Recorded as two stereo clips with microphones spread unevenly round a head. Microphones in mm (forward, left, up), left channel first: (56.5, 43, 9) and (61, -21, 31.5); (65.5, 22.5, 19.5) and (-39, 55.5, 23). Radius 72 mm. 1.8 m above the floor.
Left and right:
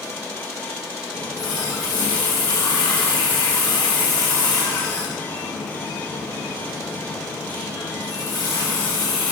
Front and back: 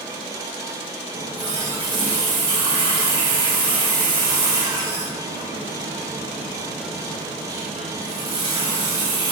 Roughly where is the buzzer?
I don't hear a buzzer.